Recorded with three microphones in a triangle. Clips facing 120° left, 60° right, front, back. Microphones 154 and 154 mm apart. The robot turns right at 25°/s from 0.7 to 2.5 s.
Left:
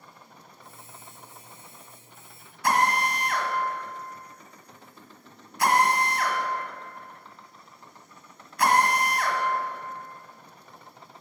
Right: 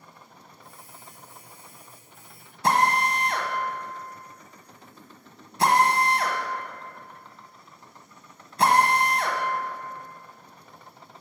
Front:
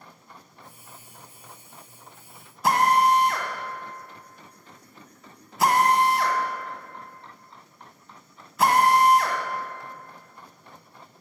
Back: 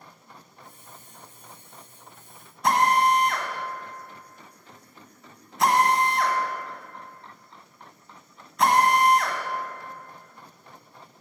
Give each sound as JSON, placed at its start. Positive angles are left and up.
{"t": 2.6, "sound": "a drill", "azimuth_deg": -85, "distance_m": 1.4}